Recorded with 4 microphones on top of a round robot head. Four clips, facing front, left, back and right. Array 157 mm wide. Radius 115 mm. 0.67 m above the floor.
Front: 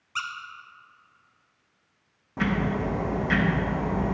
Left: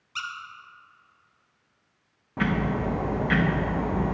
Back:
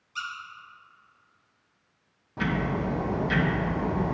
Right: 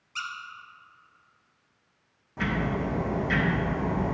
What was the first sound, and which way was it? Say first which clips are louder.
A squeak: left 1 dB, front 3 dB; 25° left.